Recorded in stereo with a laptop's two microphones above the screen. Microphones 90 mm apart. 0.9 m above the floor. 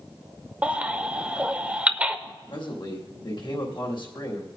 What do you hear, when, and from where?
0.6 s a baby crying: 15° right (ahead or behind), 0.7 m
2.5 s a man speaking: 60° left (ahead or behind), 1.7 m